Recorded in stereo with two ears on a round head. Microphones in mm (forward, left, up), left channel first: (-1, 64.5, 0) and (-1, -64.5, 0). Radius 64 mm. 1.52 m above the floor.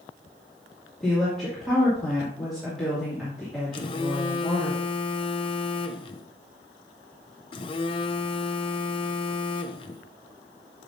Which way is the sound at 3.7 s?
35° left (ahead or behind).